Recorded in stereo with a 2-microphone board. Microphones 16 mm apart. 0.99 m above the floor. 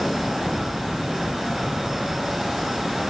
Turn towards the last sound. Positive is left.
No sound to turn to.